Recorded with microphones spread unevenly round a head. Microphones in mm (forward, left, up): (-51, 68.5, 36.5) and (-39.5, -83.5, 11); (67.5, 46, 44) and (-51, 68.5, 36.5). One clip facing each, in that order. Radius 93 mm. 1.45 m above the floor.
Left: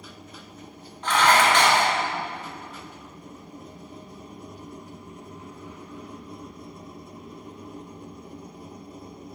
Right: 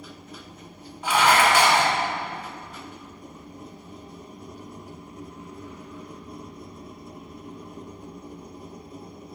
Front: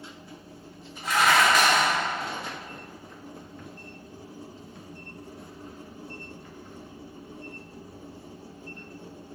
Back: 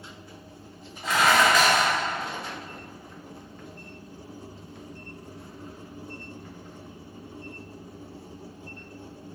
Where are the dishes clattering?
170° right, 1.0 m.